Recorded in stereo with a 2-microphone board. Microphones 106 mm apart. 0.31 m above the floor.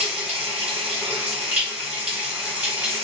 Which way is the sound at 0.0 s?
10° right (ahead or behind).